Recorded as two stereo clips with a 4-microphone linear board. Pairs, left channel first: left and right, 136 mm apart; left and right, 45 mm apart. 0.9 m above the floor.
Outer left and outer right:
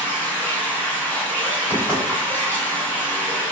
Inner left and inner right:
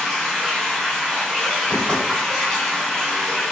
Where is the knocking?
15° left (ahead or behind), 1.5 m.